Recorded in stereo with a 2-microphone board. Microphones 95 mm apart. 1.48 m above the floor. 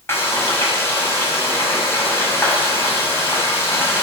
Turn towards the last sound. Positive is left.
turn(degrees=25)  # may be behind; listen again after turning